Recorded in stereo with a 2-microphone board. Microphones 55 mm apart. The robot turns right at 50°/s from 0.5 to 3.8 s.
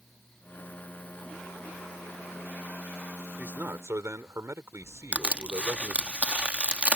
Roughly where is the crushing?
Right.